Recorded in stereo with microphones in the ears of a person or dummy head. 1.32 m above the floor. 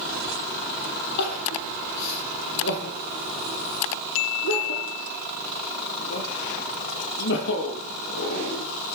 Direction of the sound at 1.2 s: 65° left (ahead or behind).